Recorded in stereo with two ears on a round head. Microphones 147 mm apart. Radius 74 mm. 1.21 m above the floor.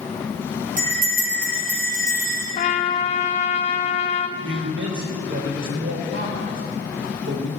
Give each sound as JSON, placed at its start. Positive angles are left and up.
{"t": 0.8, "sound": "a bell", "side_deg": -55, "distance_m": 4.5}
{"t": 2.5, "sound": "a trumpet", "side_deg": 35, "distance_m": 0.9}
{"t": 4.4, "sound": "a man speaking", "side_deg": -85, "distance_m": 3.5}